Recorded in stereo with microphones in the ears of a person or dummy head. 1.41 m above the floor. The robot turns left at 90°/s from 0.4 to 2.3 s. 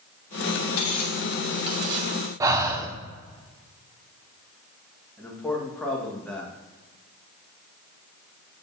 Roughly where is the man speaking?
Centre.